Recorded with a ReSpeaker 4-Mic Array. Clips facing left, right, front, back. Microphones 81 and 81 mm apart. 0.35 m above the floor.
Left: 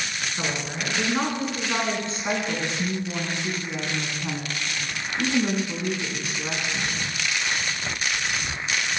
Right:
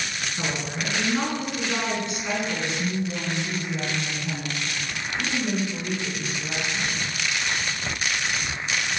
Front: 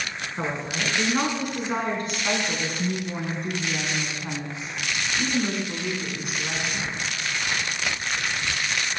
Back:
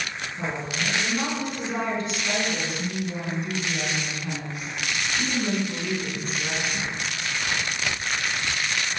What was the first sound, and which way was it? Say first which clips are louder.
A woman speaking: even, front 1 dB; 25° left.